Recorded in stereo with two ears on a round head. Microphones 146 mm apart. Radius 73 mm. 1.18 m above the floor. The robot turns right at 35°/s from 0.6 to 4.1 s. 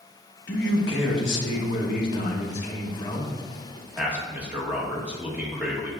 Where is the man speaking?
65° left, 1.4 m; by 5.9 s 170° right, 1.4 m.